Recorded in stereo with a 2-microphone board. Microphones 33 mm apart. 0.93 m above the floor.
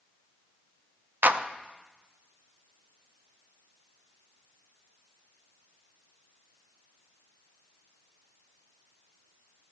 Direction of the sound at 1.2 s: 65° right (ahead or behind).